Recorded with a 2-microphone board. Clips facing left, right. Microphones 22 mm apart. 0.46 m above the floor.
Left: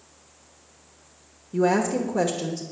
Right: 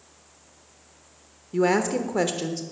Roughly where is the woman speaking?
Right.